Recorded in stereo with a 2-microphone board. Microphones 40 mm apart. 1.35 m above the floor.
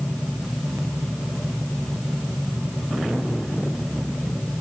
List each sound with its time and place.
Only background noise.